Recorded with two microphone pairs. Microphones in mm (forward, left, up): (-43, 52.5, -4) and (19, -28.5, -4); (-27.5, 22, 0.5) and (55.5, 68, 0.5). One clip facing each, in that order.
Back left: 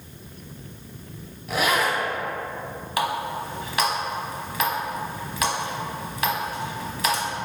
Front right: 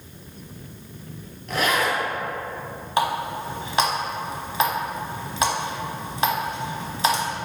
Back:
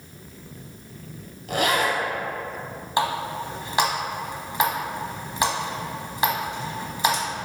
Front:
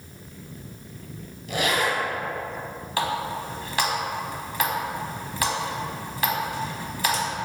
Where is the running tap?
95° right, 1.0 m.